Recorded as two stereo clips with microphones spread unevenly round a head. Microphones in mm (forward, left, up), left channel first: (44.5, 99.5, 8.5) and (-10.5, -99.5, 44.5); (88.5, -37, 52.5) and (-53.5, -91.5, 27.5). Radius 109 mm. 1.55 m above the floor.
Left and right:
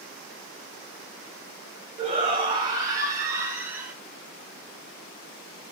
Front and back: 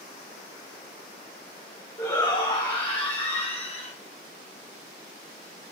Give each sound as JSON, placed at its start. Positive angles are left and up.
{"t": 2.0, "sound": "a shout", "azimuth_deg": -45, "distance_m": 6.0}